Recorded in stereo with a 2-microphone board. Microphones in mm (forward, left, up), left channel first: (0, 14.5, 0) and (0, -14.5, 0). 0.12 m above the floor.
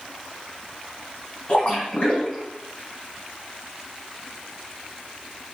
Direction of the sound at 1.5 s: 45° left (ahead or behind).